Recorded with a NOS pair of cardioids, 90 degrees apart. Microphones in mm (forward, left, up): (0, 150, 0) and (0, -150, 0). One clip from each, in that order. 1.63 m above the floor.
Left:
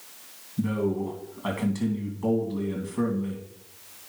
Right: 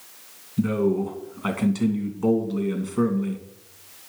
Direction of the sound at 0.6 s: 25° right.